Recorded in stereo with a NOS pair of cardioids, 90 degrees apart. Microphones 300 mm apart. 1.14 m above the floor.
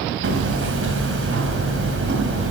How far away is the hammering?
About 3 m.